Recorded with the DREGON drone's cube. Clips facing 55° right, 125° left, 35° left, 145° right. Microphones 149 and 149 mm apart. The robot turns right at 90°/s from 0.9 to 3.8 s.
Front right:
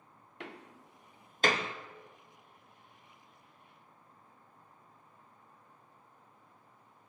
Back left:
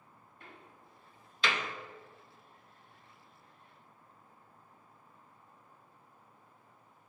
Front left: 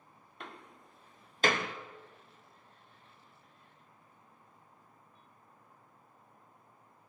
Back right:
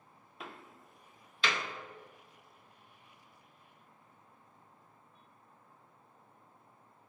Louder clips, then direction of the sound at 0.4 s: Front right 8 dB, even; 60° right.